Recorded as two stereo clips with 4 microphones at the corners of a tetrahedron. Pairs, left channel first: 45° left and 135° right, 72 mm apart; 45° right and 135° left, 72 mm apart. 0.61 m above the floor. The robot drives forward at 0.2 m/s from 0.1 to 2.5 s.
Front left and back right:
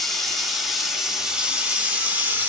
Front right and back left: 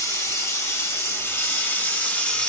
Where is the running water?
40° right, 0.8 m; by 2.5 s 100° right, 0.7 m.